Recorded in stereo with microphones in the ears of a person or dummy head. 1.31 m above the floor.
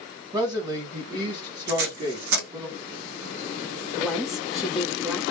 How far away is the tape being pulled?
About 1.9 m.